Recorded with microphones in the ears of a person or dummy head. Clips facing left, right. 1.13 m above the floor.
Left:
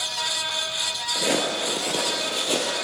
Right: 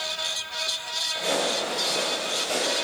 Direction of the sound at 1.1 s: 40° left (ahead or behind).